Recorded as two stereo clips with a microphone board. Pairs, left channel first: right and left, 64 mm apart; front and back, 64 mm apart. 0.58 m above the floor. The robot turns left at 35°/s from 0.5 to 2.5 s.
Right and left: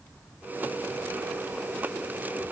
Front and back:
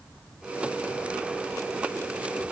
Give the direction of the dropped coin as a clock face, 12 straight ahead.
I don't hear a dropped coin.